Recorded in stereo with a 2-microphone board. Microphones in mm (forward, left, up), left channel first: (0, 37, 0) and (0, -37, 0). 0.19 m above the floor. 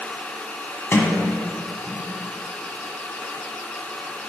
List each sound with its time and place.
0.9 s a sliding door: 30° left (ahead or behind), 1.0 m